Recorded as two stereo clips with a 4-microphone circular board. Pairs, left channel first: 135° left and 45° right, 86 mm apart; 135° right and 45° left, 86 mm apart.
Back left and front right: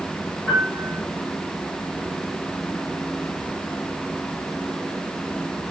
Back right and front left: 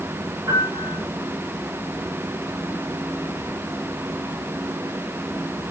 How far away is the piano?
About 2.0 m.